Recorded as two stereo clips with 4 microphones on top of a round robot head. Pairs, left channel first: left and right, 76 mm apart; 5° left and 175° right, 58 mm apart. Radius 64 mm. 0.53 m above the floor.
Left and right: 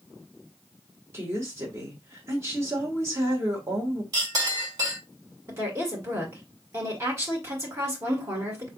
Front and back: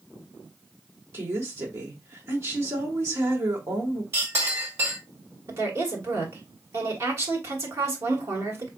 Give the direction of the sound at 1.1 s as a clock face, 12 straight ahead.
5 o'clock.